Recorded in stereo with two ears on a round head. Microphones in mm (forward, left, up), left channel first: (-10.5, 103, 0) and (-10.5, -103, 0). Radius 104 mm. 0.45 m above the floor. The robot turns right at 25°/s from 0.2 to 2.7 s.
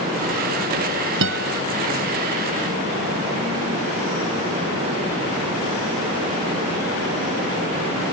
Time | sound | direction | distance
1.2 | a guitar | 55° right (ahead or behind) | ?